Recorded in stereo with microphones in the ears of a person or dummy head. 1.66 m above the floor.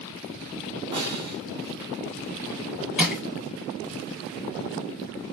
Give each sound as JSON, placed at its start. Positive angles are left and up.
{"t": 0.9, "sound": "a snare drum", "side_deg": -25, "distance_m": 1.2}
{"t": 3.0, "sound": "crushing", "side_deg": -5, "distance_m": 2.0}